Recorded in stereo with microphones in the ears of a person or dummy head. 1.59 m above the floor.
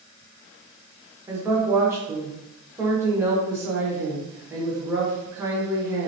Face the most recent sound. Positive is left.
turn(degrees=-15)  # may be behind; listen again after turning